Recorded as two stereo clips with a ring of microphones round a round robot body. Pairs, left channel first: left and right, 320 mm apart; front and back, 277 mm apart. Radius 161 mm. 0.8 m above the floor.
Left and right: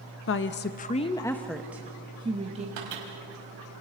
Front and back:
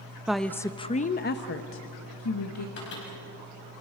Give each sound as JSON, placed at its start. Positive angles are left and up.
{"t": 0.3, "sound": "a woman speaking", "azimuth_deg": 95, "distance_m": 0.9}
{"t": 2.8, "sound": "a microwave", "azimuth_deg": -60, "distance_m": 5.0}